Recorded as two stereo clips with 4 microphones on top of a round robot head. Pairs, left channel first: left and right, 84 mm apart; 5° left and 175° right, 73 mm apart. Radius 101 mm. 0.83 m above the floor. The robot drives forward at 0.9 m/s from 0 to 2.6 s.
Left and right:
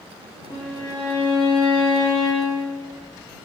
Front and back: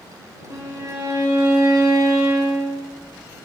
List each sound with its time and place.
0.5 s a violin: 150° left, 2 m; by 2.9 s 165° left, 4 m